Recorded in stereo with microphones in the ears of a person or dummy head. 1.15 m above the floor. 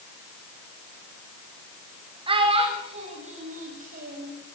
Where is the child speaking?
30° right (ahead or behind), 3 m; by 4.3 s 50° right (ahead or behind), 3.5 m.